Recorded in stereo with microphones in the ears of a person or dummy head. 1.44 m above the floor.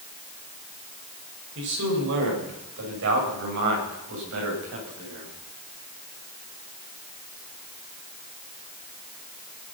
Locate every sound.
1.6 s a man speaking: 70° right (ahead or behind), 6.5 m; by 5.3 s 75° right (ahead or behind), 10 m